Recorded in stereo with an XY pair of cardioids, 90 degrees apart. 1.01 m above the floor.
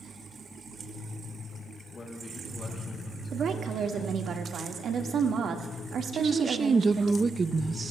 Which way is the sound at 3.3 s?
65° right.